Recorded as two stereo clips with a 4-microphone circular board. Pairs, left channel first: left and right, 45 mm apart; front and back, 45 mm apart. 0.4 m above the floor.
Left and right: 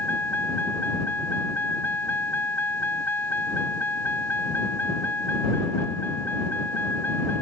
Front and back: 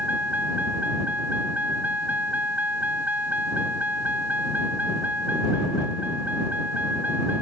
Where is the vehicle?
130° left.